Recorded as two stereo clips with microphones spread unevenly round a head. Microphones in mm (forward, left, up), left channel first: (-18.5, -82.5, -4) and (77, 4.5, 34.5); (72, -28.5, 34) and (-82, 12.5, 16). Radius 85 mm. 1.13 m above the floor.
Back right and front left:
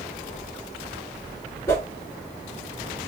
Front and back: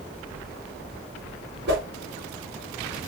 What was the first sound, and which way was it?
A whoosh, 150° left.